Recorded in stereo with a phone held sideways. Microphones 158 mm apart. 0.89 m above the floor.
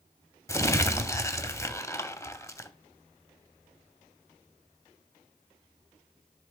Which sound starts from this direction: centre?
Crumpling, at 0.5 s.